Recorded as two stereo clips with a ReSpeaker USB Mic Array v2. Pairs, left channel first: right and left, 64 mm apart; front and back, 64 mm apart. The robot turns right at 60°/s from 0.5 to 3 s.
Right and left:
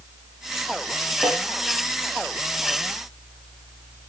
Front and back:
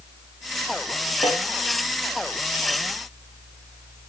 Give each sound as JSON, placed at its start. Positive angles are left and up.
{"t": 1.2, "sound": "a snare drum", "azimuth_deg": 20, "distance_m": 4.0}